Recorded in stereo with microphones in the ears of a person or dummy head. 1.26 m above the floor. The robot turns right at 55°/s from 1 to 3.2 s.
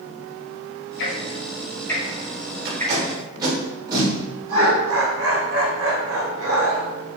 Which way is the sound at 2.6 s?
45° right (ahead or behind).